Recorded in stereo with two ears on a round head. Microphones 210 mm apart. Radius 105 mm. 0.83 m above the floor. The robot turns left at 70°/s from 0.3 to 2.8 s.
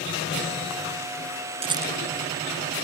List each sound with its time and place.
1.6 s a rattle: 25° right (ahead or behind); by 1.9 s 5° right (ahead or behind)